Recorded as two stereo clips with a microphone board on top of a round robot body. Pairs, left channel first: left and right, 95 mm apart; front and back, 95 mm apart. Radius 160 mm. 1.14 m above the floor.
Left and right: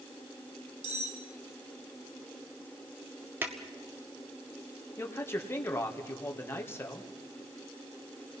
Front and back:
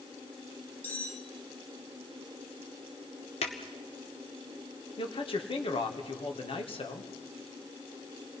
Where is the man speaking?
25° left, 2 m.